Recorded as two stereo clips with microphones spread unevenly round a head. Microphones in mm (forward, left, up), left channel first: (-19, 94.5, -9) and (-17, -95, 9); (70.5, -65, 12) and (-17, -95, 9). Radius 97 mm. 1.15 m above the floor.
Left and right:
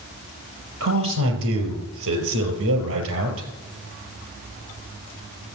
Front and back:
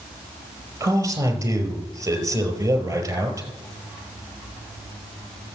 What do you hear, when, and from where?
0.8 s a man speaking: 105° right, 5 m